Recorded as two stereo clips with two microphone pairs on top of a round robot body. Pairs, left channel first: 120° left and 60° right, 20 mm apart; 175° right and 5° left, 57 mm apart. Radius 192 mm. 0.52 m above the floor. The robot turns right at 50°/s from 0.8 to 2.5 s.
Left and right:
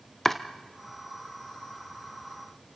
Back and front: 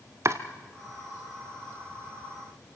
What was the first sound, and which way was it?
Chopping, 45° left.